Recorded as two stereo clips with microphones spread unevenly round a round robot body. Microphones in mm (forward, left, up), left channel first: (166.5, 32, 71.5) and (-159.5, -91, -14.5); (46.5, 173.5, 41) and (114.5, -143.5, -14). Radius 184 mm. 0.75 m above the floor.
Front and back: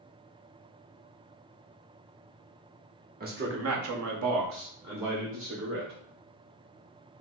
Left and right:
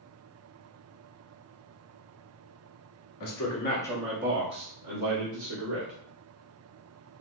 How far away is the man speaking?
About 1.2 m.